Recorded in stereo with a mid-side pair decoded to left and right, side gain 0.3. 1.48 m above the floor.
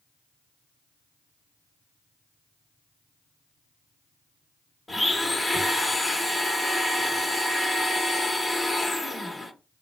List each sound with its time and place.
4.9 s a blender: 25° left, 1.4 m